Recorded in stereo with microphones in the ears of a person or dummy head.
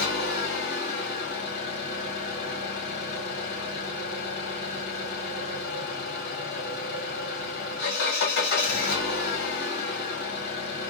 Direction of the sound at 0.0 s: 55° left (ahead or behind).